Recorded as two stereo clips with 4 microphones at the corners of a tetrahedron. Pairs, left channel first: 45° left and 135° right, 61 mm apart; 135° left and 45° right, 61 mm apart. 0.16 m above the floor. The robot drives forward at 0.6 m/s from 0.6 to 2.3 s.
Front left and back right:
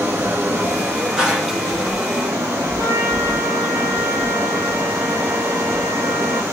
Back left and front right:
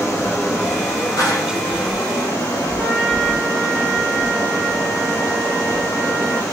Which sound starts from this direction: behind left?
A clap, at 1.2 s.